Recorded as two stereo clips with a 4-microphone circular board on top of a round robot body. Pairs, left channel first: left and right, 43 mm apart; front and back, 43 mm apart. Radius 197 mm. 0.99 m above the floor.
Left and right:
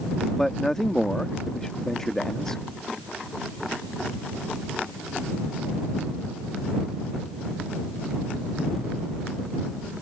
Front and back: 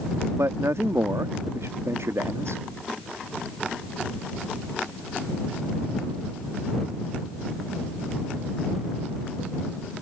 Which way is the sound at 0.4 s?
170° left.